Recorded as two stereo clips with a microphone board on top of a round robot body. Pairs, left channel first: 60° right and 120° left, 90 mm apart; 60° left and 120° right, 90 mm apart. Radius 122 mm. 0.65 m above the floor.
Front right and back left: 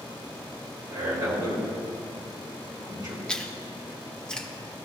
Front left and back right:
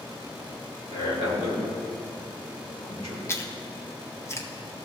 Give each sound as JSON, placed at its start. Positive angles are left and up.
{"t": 0.9, "sound": "a man speaking", "azimuth_deg": 75, "distance_m": 3.0}
{"t": 3.3, "sound": "chewing", "azimuth_deg": 20, "distance_m": 1.2}